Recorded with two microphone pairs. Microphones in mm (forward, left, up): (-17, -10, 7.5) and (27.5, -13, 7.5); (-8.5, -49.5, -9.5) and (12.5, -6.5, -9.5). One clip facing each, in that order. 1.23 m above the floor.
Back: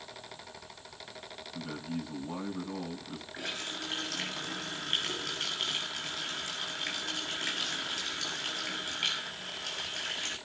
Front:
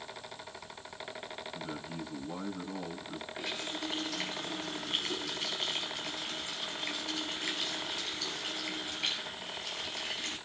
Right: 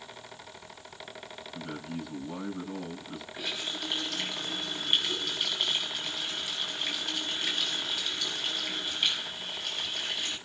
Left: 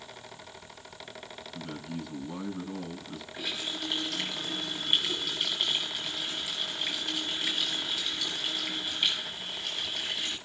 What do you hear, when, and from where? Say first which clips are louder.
1.5 s a man speaking: back 5 dB, right 1 dB; 165° left, 8.5 m
3.3 s a running tap: back 1 dB, even; 155° left, 6 m